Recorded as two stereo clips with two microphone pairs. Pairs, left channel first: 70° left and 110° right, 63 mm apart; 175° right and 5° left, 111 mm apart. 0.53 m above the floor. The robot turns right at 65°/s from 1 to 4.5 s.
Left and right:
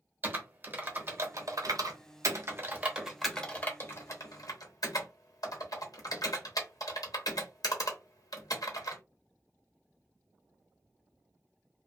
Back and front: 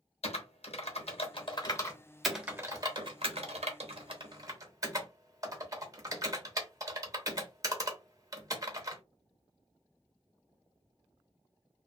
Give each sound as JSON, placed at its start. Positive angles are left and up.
{"t": 0.2, "sound": "typing on a keyboard", "azimuth_deg": -165, "distance_m": 0.7}